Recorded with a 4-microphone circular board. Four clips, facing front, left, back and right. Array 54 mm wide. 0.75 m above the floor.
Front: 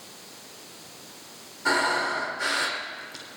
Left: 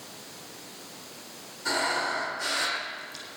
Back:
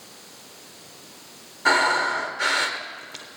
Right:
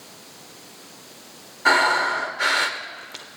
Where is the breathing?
125° right, 1.1 m.